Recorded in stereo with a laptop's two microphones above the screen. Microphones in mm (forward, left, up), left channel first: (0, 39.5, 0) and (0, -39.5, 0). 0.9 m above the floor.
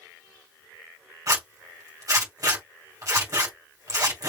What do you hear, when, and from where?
1.3 s a zipper: 45° right (ahead or behind), 2 m